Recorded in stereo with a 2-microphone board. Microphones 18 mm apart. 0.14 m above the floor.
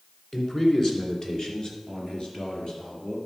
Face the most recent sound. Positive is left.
turn(degrees=50)  # may be behind; listen again after turning